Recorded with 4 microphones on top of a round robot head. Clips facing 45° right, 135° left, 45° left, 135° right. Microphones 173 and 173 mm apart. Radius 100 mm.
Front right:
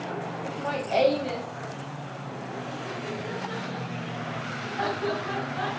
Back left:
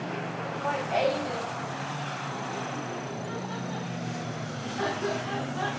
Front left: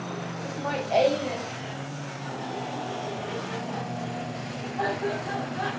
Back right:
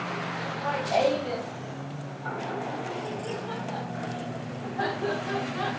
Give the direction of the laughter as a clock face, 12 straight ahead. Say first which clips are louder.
Front right 1 dB, front left 2 dB; 11 o'clock.